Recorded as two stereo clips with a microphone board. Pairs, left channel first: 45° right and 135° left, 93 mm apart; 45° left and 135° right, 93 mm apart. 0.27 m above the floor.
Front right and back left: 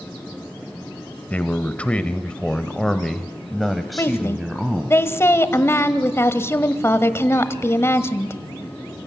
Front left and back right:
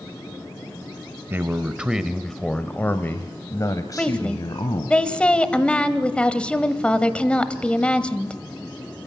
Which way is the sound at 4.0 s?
20° right.